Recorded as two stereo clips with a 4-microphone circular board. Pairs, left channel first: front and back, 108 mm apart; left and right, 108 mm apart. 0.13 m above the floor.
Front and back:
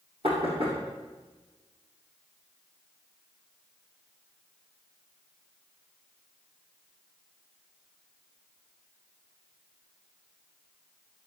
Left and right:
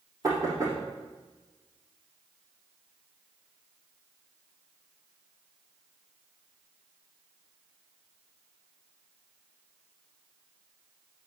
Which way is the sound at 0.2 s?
150° right.